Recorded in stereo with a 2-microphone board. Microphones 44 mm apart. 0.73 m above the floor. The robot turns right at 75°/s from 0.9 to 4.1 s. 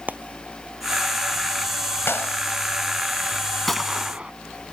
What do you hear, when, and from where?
0.1 s frying: 35° right (ahead or behind); by 2.6 s 15° right (ahead or behind)
2.1 s a clap: 70° left (ahead or behind); by 2.4 s 50° left (ahead or behind)
3.7 s a gunshot: 170° left; by 4.3 s 155° right